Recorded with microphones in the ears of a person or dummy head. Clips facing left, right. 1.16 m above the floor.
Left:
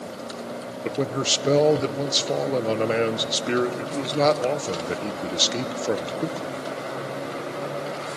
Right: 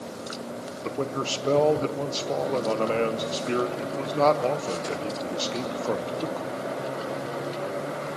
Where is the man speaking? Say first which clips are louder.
Left 3 dB; 25° left (ahead or behind), 0.6 m.